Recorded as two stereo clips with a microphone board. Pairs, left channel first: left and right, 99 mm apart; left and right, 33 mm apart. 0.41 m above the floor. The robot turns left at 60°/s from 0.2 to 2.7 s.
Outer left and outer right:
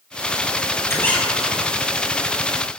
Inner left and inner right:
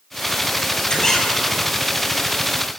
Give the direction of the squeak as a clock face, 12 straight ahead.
11 o'clock.